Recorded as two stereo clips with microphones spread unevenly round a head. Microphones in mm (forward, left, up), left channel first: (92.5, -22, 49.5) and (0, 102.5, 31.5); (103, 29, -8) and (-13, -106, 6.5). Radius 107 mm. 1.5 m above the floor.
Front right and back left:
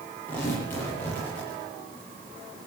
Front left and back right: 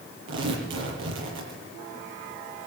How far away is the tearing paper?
About 8 m.